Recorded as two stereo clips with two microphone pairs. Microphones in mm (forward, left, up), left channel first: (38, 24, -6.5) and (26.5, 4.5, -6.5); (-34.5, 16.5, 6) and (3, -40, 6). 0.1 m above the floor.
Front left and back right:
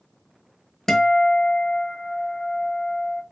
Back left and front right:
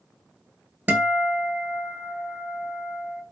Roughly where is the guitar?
Ahead.